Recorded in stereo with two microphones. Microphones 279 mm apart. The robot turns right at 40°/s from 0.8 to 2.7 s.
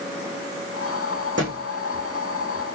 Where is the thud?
40° right (ahead or behind), 8.5 m; by 1.6 s 50° right (ahead or behind), 8.5 m.